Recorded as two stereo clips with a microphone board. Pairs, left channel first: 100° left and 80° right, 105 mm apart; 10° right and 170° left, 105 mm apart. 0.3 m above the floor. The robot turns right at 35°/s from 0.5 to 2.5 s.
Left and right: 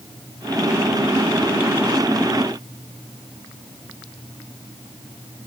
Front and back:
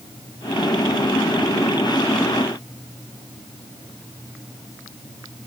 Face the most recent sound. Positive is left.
No sound to turn to.